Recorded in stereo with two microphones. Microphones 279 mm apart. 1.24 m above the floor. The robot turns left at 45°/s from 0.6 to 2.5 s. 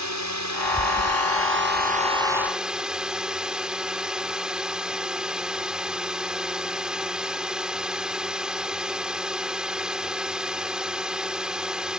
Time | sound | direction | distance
0.0 | a drone | 90° right | ?